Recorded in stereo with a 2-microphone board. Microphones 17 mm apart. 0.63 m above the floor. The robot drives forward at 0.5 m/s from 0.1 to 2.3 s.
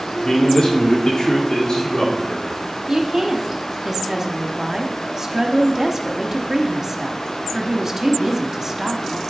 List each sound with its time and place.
0.2 s a man speaking: 50° left (ahead or behind), 1.7 m
2.9 s a woman speaking: 35° right (ahead or behind), 1.0 m